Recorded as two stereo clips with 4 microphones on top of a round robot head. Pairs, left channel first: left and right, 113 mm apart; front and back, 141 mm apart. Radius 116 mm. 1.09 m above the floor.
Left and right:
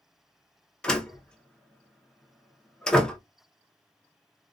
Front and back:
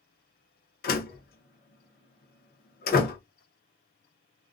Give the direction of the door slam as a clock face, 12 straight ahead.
12 o'clock.